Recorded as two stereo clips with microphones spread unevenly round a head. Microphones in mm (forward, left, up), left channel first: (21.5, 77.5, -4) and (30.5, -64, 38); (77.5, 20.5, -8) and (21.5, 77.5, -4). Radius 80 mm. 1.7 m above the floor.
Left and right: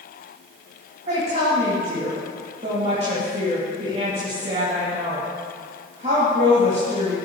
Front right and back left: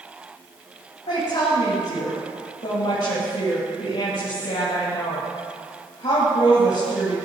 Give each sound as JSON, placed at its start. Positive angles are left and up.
{"t": 1.1, "sound": "a woman speaking", "azimuth_deg": -40, "distance_m": 3.0}